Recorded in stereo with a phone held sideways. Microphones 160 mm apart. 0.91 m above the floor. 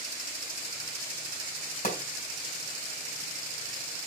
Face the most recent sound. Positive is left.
turn(degrees=60)  # may be behind; listen again after turning